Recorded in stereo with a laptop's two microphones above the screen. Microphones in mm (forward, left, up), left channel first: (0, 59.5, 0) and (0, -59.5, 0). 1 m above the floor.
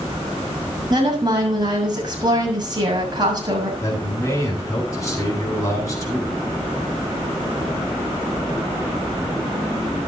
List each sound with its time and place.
0.9 s a woman speaking: 35° right (ahead or behind), 6.5 m
3.8 s a man speaking: 30° left (ahead or behind), 8.5 m